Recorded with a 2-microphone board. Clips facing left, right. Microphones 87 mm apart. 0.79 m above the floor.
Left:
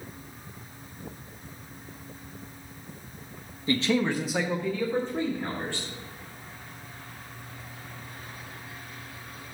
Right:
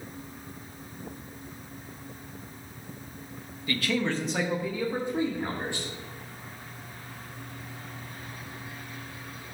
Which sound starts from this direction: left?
A man speaking, at 3.7 s.